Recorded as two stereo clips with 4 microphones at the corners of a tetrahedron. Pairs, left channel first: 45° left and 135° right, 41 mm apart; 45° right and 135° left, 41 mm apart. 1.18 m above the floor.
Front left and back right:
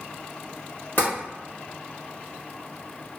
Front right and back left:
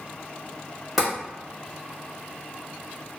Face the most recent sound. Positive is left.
turn(degrees=50)